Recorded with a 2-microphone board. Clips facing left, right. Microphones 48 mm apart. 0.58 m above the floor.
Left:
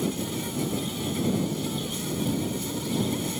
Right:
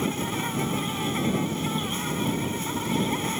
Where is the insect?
45° right (ahead or behind).